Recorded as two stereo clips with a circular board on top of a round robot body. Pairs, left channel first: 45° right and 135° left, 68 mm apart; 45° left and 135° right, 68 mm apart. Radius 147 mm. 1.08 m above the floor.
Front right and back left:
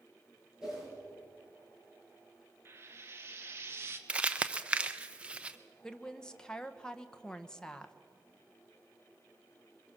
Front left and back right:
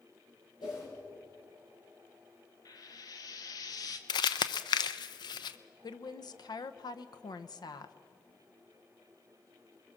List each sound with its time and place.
0.6 s a whoosh: 50° left, 10 m
2.6 s frying: 80° left, 1.2 m
4.1 s crumpling: 60° left, 0.5 m
5.8 s a woman speaking: 35° left, 1.0 m